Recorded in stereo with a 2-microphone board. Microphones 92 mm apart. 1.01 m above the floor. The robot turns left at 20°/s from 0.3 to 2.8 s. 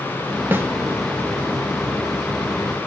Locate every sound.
0.5 s a snare drum: 20° right (ahead or behind), 0.6 m; by 0.7 s 25° right (ahead or behind), 0.6 m